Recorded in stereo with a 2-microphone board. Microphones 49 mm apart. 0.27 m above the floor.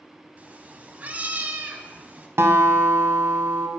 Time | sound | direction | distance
0.4 | a cat meowing | 30° right (ahead or behind) | 0.6 m
2.4 | a guitar | 55° right (ahead or behind) | 0.6 m